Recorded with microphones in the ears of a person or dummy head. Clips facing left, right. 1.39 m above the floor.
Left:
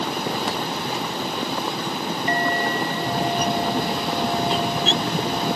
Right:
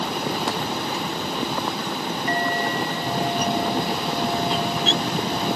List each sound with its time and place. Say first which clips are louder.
2.3 s a clink: left 1 dB; 65° left (ahead or behind)